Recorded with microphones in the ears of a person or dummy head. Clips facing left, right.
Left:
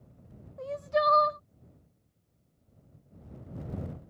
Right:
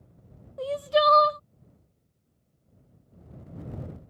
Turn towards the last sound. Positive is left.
turn(degrees=-50)  # may be behind; listen again after turning